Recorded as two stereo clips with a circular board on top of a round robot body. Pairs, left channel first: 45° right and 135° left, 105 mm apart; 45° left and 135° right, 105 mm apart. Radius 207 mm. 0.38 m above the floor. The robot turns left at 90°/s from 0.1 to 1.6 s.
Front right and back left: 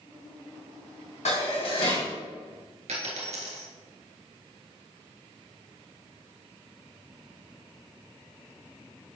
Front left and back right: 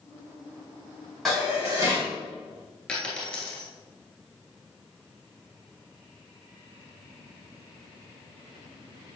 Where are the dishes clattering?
40° right, 3 m; by 2.1 s 75° right, 3 m.